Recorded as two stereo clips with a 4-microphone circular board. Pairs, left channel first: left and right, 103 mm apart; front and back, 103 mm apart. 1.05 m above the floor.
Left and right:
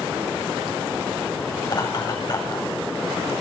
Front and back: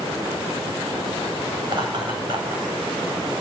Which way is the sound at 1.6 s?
135° left.